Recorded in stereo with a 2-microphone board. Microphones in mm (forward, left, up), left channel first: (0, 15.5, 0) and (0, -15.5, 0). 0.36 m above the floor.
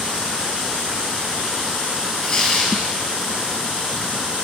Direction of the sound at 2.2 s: 15° left (ahead or behind).